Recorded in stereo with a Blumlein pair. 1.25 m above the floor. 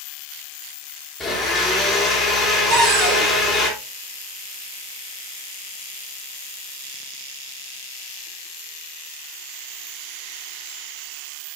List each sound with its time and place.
1.2 s a blender: 10° left, 3.5 m
2.7 s a cupboard door: 35° right, 3.5 m